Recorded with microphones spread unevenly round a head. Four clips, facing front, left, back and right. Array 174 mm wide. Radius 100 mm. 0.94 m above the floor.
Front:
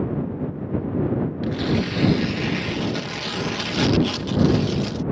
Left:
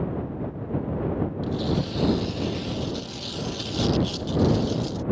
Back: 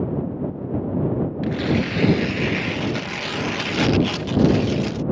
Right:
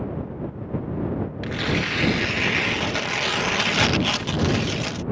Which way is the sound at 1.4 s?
90° right.